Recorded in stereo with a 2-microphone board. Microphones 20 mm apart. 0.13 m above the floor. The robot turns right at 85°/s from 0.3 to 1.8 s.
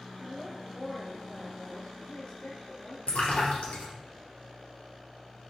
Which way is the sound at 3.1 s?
65° left (ahead or behind).